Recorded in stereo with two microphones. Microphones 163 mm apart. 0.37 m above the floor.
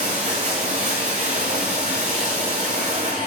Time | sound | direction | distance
0.0 | running water | 45° right (ahead or behind) | 5 m